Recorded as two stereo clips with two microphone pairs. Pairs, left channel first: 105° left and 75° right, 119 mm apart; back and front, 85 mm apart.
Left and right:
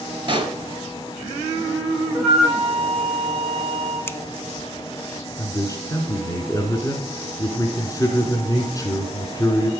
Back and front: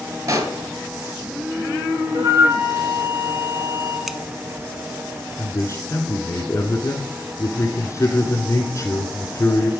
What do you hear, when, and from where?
0.3 s a pop: 30° right, 1.5 m
2.1 s a flute: 10° left, 7 m
4.1 s scissors: 85° left, 0.7 m
5.4 s a man speaking: 155° left, 1.6 m